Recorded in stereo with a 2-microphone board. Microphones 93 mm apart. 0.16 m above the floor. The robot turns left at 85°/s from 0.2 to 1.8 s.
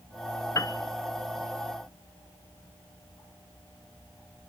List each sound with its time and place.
0.6 s a piano: 35° left (ahead or behind), 0.6 m; by 0.8 s 50° left (ahead or behind), 0.6 m